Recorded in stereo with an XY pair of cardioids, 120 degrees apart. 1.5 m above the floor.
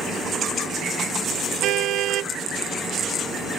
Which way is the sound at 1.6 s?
70° right.